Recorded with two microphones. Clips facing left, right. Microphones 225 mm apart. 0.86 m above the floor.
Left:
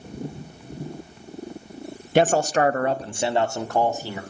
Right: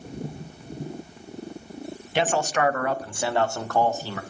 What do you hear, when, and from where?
2.1 s a man speaking: 45° left (ahead or behind), 0.6 m; by 4.2 s 15° left (ahead or behind), 2 m